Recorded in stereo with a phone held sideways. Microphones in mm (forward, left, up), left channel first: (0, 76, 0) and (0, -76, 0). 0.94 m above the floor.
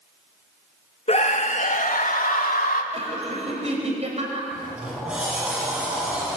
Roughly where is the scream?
Left.